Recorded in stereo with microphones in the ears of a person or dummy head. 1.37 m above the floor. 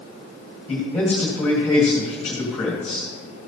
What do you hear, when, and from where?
0.7 s a man speaking: 10° left (ahead or behind), 1.7 m